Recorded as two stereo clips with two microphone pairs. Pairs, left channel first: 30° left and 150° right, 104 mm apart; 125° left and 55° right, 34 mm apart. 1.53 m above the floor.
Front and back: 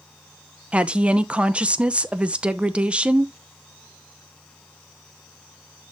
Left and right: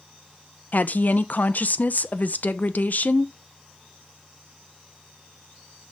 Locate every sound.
0.7 s a woman speaking: 135° left, 0.8 m